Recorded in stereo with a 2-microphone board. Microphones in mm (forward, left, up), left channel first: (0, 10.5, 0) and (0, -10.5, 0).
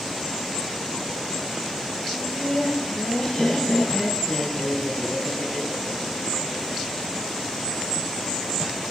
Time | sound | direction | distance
2.1 | laughter | 30° left (ahead or behind) | 1.5 m